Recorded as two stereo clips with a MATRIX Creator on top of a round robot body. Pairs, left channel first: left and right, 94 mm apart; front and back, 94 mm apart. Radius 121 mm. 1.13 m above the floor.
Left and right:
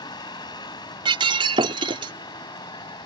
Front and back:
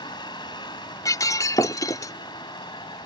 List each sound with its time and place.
0.0 s a vehicle: 45° left
1.1 s breaking glass: 60° right